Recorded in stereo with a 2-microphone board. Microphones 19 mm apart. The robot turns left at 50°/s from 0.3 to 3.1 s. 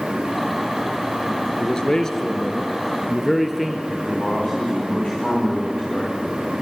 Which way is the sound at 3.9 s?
50° left (ahead or behind).